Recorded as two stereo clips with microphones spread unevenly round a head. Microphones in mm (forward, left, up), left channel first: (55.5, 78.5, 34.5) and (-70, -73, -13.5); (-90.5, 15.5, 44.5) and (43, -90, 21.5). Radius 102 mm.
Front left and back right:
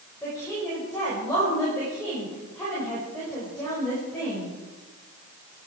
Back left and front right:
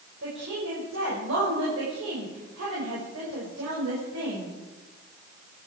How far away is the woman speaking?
About 5.5 m.